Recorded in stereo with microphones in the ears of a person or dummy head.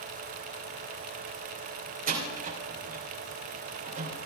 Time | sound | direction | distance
2.1 | a door slam | 45° right (ahead or behind) | 3 m